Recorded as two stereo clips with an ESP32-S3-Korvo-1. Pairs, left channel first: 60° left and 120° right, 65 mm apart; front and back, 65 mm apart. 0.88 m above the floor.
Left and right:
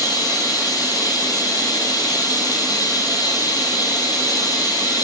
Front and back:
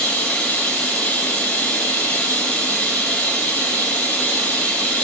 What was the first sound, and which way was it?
Running water, 65° left.